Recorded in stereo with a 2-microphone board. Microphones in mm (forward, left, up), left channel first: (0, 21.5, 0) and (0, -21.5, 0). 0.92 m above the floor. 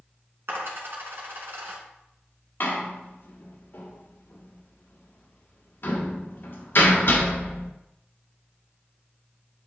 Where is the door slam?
55° left (ahead or behind), 1.6 m.